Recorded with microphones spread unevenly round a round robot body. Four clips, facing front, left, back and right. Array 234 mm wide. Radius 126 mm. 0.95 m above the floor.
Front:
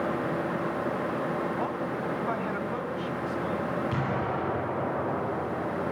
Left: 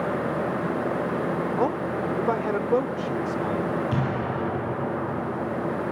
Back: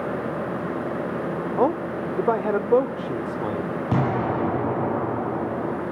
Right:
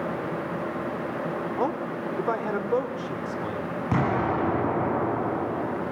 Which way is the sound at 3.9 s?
160° right.